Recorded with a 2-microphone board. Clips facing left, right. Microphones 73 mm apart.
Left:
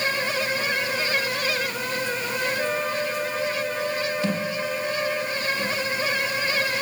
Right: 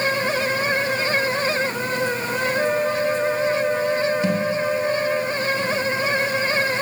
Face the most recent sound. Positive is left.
turn(degrees=-15)  # may be behind; listen again after turning